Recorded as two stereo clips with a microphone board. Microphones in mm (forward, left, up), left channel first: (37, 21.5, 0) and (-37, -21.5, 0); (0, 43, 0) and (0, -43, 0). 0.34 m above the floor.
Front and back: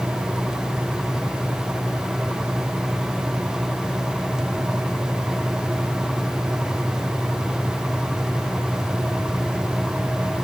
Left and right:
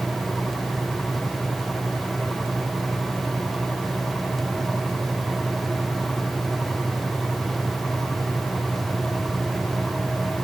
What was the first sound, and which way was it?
Only background noise.